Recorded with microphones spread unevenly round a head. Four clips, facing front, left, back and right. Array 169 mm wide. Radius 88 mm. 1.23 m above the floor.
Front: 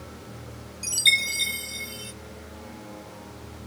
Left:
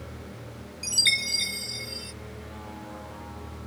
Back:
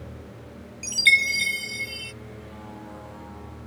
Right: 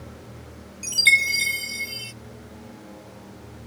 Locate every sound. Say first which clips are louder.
0.8 s a chime: right 10 dB, back 5 dB; 120° right